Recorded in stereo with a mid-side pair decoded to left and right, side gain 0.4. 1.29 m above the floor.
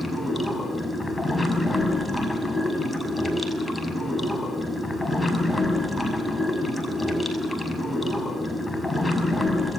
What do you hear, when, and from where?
0.0 s running water: 15° left, 6 m